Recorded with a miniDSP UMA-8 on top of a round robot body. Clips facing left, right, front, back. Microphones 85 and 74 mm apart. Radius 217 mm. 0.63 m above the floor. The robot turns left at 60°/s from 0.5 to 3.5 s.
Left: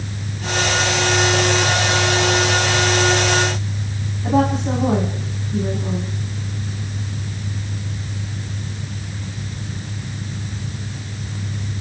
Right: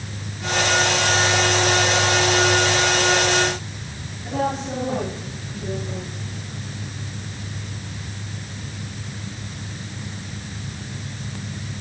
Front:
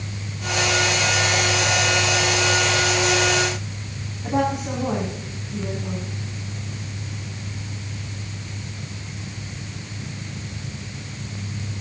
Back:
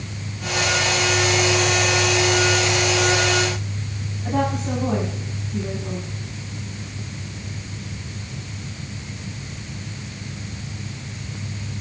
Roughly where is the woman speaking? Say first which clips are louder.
Left 6 dB, front 1 dB; ahead left.